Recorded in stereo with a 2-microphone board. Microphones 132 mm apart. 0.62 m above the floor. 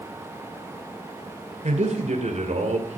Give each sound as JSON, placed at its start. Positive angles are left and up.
{"t": 1.6, "sound": "a man speaking", "side_deg": -60, "distance_m": 2.5}